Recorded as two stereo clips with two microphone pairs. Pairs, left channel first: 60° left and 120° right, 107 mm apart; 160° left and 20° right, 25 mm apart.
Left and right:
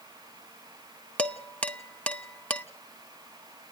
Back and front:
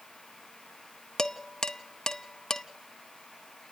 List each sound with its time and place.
1.2 s dishes clattering: 130° left, 0.8 m